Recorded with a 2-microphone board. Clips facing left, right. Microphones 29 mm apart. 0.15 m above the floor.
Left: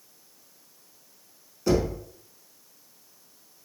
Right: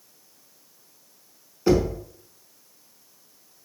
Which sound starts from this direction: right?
Knocking, at 1.7 s.